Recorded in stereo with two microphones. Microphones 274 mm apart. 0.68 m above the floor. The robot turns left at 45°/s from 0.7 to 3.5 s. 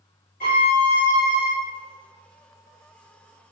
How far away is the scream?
I don't hear a scream.